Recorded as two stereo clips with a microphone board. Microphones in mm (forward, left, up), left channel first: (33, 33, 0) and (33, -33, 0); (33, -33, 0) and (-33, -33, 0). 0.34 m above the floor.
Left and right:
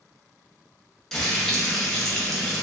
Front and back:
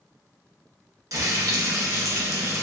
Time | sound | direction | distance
1.1 | frying | 170° left | 0.5 m